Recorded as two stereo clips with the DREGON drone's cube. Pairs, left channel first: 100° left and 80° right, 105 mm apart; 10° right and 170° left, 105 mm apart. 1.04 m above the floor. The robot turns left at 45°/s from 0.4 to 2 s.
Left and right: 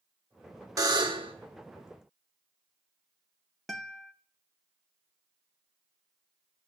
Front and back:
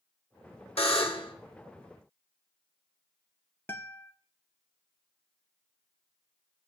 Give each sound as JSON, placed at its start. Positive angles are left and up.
{"t": 0.8, "sound": "a buzzer", "azimuth_deg": -25, "distance_m": 1.3}
{"t": 3.7, "sound": "a guitar", "azimuth_deg": 15, "distance_m": 0.5}